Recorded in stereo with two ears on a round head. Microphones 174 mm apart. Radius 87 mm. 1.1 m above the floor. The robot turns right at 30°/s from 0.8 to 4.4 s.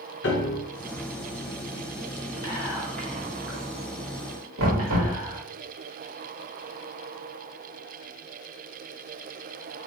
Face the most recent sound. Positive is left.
turn(degrees=-75)  # may be behind; listen again after turning